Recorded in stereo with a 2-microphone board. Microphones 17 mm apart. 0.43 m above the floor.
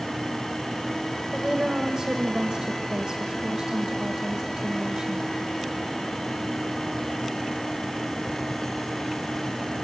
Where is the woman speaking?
50° right (ahead or behind), 1.5 m.